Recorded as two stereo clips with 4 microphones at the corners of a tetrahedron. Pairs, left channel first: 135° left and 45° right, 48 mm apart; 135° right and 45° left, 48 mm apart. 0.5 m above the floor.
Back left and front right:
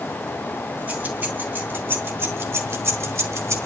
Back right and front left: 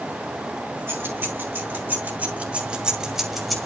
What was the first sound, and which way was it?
Keys jangling, 15° left.